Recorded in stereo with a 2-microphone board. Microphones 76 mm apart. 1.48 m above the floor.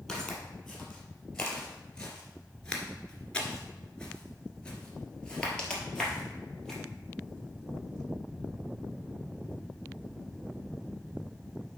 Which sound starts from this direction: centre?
Footsteps, at 0.1 s.